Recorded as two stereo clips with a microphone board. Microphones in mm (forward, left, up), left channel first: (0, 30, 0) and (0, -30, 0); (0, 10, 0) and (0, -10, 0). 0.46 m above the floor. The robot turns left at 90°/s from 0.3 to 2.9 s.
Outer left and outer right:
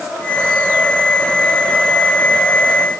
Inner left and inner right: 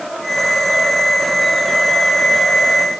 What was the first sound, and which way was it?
Only background noise.